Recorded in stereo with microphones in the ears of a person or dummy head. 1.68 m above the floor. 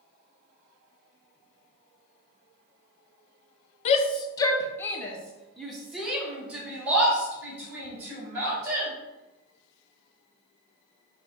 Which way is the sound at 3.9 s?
40° left (ahead or behind).